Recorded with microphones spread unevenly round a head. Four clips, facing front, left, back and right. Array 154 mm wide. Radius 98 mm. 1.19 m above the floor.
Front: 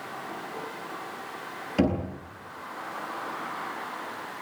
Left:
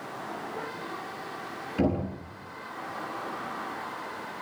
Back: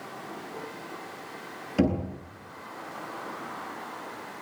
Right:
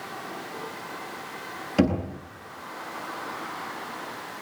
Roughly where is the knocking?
Behind right.